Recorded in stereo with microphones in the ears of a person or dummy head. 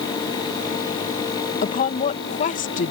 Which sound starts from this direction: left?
A woman speaking, at 1.6 s.